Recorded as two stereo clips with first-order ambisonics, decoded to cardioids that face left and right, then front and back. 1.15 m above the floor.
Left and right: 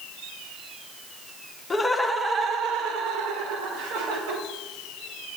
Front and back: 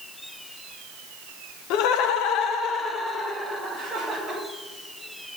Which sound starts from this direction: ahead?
Laughter, at 1.7 s.